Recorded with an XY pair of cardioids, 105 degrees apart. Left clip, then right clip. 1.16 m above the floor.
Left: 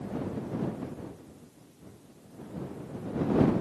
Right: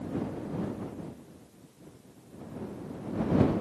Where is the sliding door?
I don't hear a sliding door.